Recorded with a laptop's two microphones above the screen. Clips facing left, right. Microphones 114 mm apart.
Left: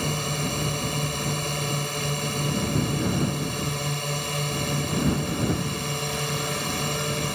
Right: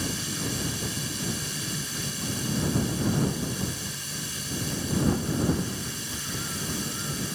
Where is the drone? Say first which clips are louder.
Left 4 dB; 65° left (ahead or behind); by 7.4 s 70° left (ahead or behind).